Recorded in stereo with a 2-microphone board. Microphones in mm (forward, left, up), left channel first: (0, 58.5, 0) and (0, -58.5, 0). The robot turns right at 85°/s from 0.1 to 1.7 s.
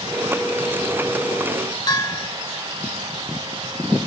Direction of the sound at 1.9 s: 35° left (ahead or behind).